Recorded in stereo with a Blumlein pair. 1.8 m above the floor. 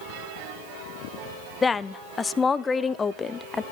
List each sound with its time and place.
1.6 s a woman speaking: 15° left, 0.7 m